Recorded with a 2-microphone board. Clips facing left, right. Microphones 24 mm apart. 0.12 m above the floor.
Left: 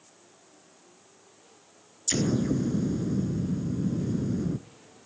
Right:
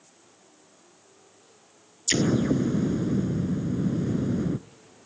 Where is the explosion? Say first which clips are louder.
Right 3 dB; 35° right (ahead or behind), 0.7 m.